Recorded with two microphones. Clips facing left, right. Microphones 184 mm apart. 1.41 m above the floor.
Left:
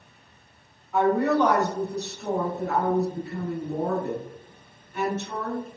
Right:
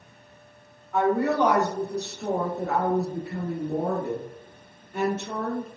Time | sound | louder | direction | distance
0.9 | a woman speaking | left 1 dB | 5° left (ahead or behind) | 0.9 m